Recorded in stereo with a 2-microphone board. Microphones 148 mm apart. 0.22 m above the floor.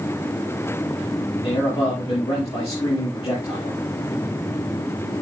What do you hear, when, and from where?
1.4 s a man speaking: 35° left (ahead or behind), 6.5 m